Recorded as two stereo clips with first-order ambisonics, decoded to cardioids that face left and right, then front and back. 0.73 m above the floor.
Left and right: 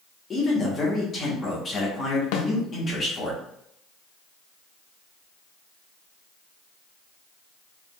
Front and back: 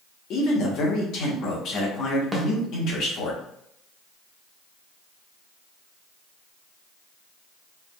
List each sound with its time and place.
0.3 s a man speaking: 25° left, 1.3 m
2.3 s a snare drum: 95° left, 0.6 m